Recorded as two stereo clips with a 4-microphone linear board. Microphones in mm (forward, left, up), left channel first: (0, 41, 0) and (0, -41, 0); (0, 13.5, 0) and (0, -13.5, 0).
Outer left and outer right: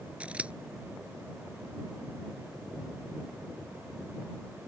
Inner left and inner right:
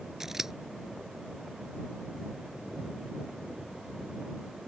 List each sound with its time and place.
0.2 s scissors: 15° right (ahead or behind)